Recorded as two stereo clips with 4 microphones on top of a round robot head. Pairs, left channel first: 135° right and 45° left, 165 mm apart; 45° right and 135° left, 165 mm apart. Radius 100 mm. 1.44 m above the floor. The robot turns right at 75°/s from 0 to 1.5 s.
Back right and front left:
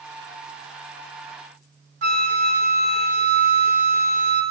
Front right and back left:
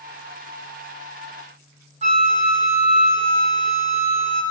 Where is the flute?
85° left, 0.9 m.